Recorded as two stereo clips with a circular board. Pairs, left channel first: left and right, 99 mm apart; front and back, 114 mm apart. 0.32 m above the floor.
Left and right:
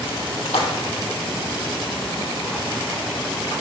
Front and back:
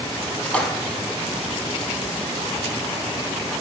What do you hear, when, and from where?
0.5 s a splash: 80° left, 0.7 m